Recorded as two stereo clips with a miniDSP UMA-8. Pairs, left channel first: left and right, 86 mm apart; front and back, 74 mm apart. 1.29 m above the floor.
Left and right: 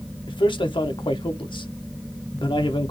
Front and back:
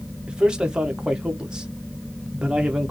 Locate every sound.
0.3 s a man speaking: 100° left, 1.0 m